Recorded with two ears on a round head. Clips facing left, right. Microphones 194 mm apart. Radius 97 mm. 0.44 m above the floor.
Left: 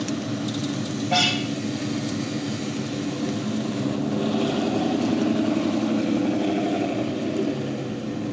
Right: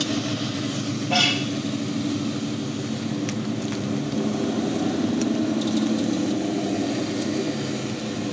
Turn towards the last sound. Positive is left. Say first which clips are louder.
# even
turn(degrees=-10)  # may be behind; listen again after turning